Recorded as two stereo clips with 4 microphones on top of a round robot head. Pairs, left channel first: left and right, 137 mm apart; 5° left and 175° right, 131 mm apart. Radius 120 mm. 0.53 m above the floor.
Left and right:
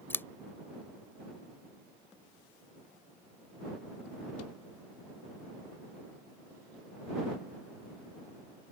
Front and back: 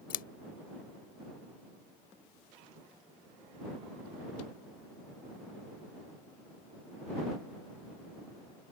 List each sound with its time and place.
0.1 s scissors: 15° left